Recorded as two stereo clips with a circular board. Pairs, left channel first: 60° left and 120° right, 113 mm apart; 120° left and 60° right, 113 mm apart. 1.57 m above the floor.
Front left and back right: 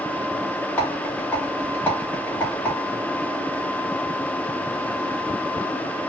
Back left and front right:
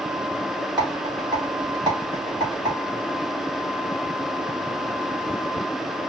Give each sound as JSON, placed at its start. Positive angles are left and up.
{"t": 0.8, "sound": "a rattle", "azimuth_deg": -10, "distance_m": 2.0}